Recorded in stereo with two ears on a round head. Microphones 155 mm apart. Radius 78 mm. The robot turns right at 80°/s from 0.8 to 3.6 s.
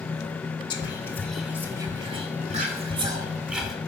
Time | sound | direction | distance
0.7 | whispering | 25° left (ahead or behind) | 1.6 m